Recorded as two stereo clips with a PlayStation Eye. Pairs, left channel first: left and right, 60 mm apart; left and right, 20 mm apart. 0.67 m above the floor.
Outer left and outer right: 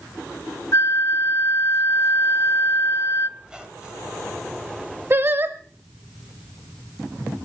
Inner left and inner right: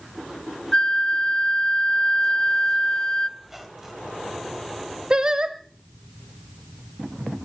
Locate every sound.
0.7 s a flute: 50° left (ahead or behind), 0.6 m
3.4 s a squeak: 15° right (ahead or behind), 2.5 m
5.1 s singing: 40° right (ahead or behind), 0.9 m